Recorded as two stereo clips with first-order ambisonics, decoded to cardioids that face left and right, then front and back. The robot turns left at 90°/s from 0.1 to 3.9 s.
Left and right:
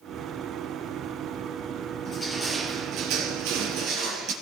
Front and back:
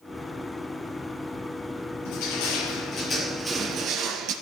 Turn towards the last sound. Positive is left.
turn(degrees=-135)